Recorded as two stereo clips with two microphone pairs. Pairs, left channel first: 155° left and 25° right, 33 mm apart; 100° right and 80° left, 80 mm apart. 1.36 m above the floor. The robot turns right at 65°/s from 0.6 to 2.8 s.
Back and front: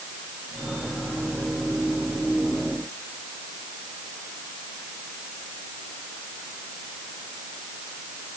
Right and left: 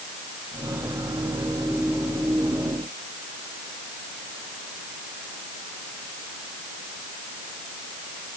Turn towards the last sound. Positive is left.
No sound to turn to.